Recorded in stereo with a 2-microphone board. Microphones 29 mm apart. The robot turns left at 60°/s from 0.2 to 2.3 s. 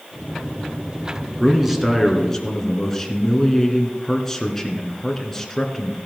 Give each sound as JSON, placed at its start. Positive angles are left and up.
{"t": 1.4, "sound": "a man speaking", "azimuth_deg": -150, "distance_m": 1.8}